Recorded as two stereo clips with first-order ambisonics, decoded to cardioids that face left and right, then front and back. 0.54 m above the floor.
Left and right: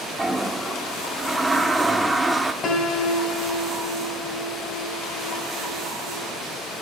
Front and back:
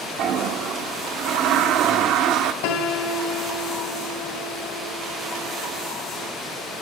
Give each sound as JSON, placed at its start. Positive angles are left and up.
{"t": 0.2, "sound": "a toilet flushing", "azimuth_deg": -175, "distance_m": 1.0}
{"t": 2.6, "sound": "a piano", "azimuth_deg": 25, "distance_m": 1.7}